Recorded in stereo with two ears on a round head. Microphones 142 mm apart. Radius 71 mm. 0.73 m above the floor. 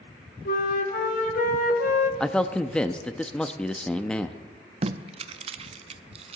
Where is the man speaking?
5° left (ahead or behind), 0.6 m.